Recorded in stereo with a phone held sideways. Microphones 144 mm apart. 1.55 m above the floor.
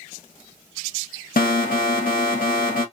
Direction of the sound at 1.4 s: 65° left (ahead or behind).